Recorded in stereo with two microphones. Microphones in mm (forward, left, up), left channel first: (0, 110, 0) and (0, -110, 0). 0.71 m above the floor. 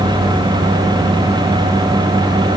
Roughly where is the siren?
I don't hear a siren.